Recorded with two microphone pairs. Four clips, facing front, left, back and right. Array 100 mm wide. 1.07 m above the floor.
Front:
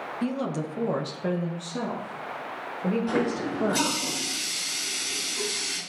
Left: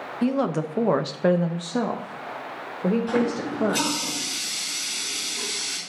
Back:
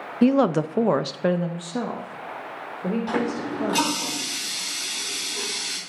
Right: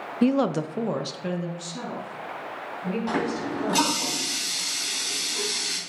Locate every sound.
0.2 s a woman speaking: 165° right, 0.5 m; by 4.1 s 85° left, 1.7 m
3.1 s a running tap: 130° right, 5 m